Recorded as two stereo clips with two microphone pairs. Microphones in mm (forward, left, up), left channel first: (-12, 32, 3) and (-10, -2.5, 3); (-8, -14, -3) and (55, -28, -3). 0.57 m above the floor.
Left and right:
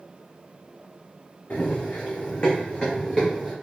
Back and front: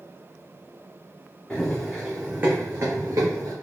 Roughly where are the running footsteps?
Left.